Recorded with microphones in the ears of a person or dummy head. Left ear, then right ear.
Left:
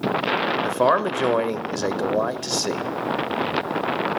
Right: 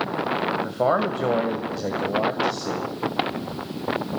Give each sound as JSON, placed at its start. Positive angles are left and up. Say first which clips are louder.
{"t": 0.6, "sound": "a man speaking", "louder": "left 3 dB", "side_deg": 85, "distance_m": 0.8}